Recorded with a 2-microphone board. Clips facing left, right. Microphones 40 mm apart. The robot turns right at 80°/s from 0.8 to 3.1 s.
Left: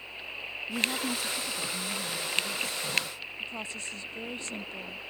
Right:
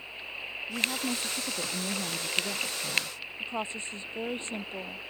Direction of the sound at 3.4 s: 35° right (ahead or behind).